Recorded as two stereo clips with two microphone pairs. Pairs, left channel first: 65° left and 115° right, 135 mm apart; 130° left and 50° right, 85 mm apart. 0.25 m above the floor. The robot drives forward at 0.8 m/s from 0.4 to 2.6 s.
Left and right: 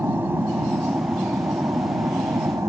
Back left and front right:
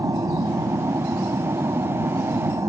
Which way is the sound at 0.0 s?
50° right.